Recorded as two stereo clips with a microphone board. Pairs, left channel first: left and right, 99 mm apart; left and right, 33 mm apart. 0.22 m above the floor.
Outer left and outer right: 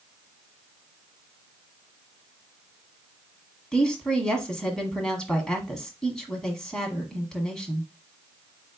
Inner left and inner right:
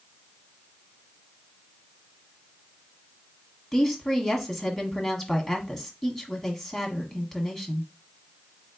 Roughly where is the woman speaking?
Centre.